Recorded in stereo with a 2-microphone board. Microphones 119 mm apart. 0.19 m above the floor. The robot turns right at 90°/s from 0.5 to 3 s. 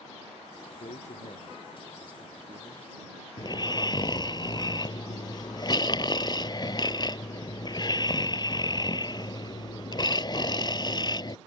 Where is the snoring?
35° left (ahead or behind).